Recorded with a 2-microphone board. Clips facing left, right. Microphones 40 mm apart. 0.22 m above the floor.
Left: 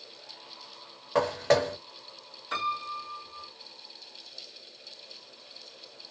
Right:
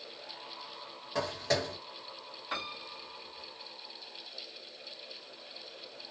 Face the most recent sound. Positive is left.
turn(degrees=-10)  # may be behind; listen again after turning